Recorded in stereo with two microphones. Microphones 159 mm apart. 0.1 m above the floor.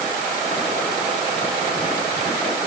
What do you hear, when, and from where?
Only background noise.